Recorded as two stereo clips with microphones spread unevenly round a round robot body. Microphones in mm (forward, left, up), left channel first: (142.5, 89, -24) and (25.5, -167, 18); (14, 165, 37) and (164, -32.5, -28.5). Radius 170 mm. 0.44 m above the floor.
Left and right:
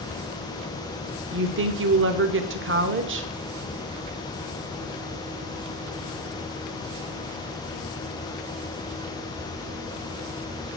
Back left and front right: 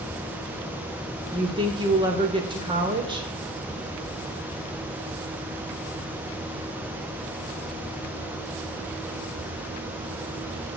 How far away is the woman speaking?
About 1.0 m.